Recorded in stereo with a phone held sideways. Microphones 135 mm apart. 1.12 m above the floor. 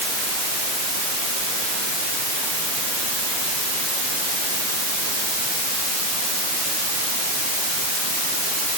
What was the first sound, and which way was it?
Only background noise.